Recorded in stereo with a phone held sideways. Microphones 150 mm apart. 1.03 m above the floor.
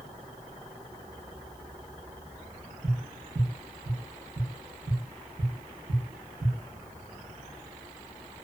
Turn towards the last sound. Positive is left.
turn(degrees=-40)  # may be behind; listen again after turning